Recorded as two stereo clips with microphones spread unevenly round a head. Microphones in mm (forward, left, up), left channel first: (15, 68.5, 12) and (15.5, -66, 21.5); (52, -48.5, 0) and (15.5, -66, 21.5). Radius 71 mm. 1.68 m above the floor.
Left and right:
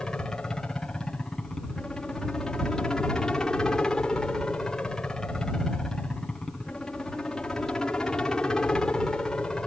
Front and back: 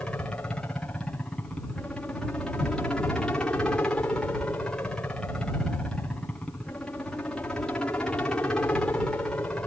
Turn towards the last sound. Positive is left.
turn(degrees=10)